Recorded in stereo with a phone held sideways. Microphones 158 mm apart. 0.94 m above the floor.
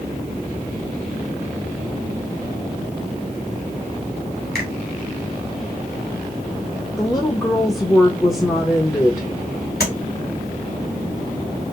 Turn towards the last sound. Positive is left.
turn(degrees=85)